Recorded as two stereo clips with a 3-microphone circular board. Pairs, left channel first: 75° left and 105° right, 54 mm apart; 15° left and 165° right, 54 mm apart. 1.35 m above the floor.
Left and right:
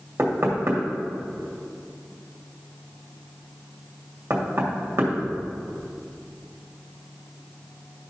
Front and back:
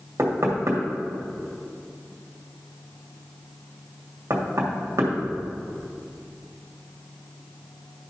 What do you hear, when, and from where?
0.2 s knocking: 140° right, 2 m